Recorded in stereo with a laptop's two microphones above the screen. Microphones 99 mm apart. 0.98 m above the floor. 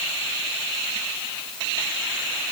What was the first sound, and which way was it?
Only background noise.